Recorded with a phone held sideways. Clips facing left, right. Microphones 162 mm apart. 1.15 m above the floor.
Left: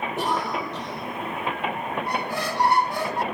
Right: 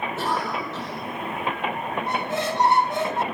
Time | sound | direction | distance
0.2 | a cough | 15° left (ahead or behind) | 5 m
2.1 | a squeak | 20° right (ahead or behind) | 0.9 m